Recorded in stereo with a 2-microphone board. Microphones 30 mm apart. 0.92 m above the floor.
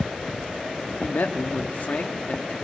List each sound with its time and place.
1.0 s a man speaking: 75° left (ahead or behind), 1.4 m; by 2.5 s 45° left (ahead or behind), 1.5 m